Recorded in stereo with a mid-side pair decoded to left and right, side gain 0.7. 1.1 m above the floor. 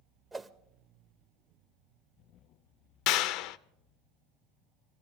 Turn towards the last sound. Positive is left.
turn(degrees=65)